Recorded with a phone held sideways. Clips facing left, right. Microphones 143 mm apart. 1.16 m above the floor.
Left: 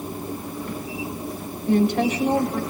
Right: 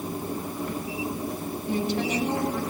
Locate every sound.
1.7 s a woman speaking: 65° left (ahead or behind), 6.5 m